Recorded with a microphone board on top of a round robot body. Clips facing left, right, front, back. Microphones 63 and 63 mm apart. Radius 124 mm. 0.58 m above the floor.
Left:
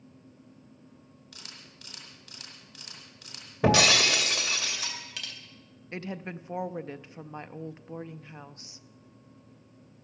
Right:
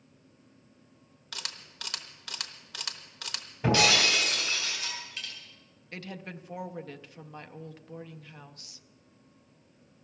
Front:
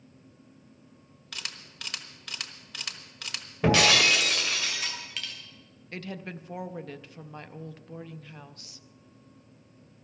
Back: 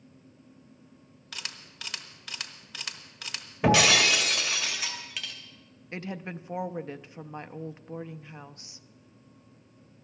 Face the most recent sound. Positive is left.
turn(degrees=130)